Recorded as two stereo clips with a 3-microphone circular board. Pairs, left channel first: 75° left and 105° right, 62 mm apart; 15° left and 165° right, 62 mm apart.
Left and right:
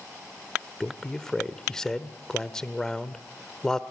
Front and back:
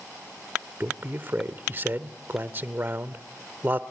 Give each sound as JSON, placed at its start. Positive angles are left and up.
{"t": 0.8, "sound": "a man speaking", "azimuth_deg": 155, "distance_m": 1.1}